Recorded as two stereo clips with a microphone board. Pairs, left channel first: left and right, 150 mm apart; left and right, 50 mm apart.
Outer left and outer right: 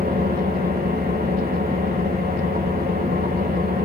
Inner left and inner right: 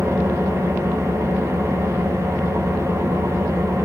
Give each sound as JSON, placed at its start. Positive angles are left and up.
{"t": 0.0, "sound": "an engine running", "side_deg": -75, "distance_m": 8.0}